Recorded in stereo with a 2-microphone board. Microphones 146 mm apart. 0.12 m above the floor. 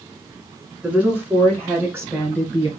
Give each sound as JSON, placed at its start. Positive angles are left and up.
{"t": 0.8, "sound": "a woman speaking", "side_deg": -10, "distance_m": 1.7}